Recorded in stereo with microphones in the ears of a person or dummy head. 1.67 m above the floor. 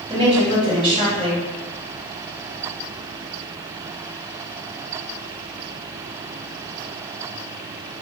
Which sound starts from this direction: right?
A woman speaking, at 0.1 s.